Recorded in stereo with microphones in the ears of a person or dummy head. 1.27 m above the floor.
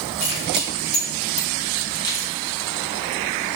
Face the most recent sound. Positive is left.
turn(degrees=10)  # may be behind; listen again after turning